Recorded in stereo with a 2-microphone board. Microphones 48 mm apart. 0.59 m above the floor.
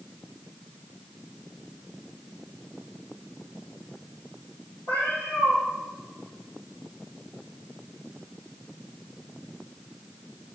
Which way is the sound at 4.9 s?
65° left (ahead or behind).